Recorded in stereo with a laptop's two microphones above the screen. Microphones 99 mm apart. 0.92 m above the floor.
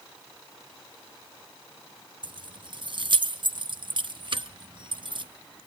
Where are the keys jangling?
55° right (ahead or behind), 0.7 m.